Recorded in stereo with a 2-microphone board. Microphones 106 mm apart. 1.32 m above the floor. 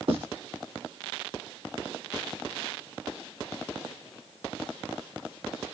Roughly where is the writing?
Right.